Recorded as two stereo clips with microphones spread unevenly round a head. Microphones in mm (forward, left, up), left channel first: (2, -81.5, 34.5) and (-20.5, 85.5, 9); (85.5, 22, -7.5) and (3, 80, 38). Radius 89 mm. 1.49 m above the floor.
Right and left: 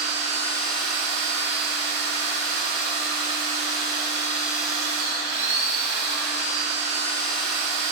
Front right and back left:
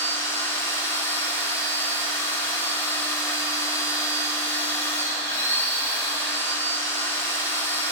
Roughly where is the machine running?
Ahead left.